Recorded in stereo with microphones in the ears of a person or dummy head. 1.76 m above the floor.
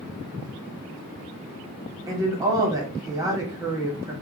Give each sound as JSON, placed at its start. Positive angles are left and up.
{"t": 2.1, "sound": "a woman speaking", "side_deg": -20, "distance_m": 1.4}